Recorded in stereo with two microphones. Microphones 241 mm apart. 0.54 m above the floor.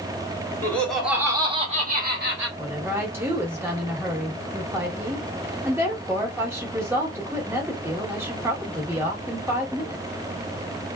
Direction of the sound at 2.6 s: 10° right (ahead or behind).